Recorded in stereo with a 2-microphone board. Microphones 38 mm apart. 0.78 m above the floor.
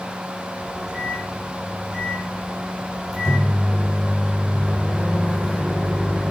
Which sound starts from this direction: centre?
A microwave, at 0.6 s.